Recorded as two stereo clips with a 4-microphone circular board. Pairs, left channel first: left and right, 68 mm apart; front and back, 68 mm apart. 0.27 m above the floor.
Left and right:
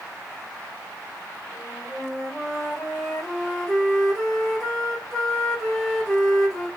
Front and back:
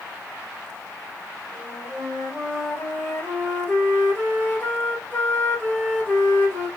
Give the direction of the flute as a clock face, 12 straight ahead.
12 o'clock.